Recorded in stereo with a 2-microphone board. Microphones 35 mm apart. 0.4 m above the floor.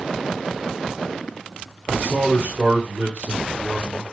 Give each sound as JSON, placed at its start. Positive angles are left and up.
{"t": 1.9, "sound": "a man speaking", "side_deg": -35, "distance_m": 2.0}